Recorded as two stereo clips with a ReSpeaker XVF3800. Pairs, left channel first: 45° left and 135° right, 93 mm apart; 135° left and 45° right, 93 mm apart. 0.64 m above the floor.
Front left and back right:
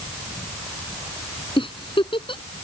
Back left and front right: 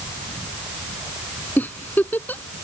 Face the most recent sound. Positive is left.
turn(degrees=65)